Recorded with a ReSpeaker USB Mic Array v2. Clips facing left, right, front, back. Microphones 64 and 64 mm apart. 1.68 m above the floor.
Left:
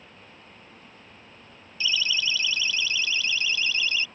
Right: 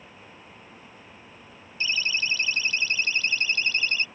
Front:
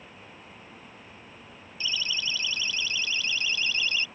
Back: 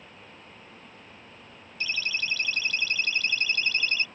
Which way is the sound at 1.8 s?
145° right.